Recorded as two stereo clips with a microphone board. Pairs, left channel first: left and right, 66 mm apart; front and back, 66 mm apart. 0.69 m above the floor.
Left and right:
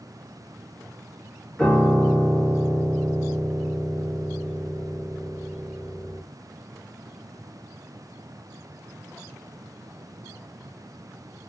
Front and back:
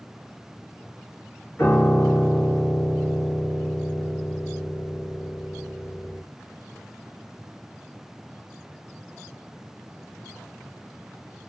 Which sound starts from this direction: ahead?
A piano, at 1.6 s.